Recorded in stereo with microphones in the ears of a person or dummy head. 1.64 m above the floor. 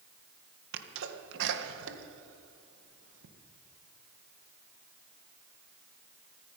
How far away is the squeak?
No squeak in this recording.